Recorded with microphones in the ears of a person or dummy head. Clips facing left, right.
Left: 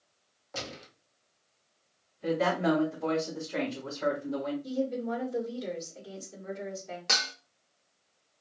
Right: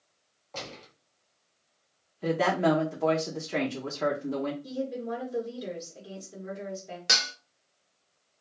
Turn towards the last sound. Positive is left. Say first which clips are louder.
# right 1 dB
turn(degrees=-15)  # may be behind; listen again after turning